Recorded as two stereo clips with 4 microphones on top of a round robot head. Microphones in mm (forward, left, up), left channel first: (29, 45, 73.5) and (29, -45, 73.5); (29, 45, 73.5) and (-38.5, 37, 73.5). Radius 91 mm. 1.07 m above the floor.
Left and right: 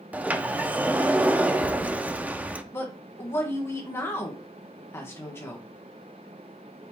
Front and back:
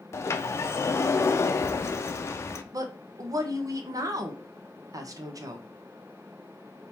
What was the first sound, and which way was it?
A sliding door, 20° right.